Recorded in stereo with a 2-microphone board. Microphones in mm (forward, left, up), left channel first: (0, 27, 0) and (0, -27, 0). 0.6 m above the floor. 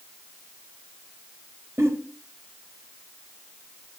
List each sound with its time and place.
1.8 s a giggle: 55° right (ahead or behind), 3.5 m